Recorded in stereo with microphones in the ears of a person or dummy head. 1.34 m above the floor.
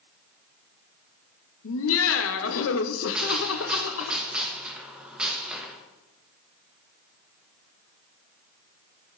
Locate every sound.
1.6 s laughter: 75° left (ahead or behind), 0.7 m
3.1 s a gunshot: 10° right (ahead or behind), 0.9 m